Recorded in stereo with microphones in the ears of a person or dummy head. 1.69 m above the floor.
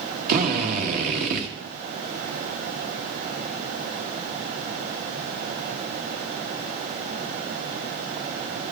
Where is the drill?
50° right (ahead or behind), 1.7 m.